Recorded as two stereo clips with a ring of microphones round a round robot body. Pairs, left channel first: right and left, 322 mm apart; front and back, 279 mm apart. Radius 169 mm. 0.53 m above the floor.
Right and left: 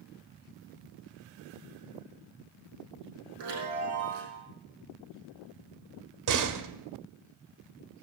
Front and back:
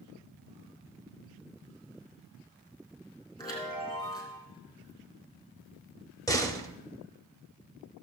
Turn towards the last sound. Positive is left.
turn(degrees=80)